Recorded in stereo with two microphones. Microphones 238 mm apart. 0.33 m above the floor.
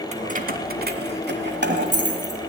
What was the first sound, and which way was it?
Keys jangling, 30° right (ahead or behind).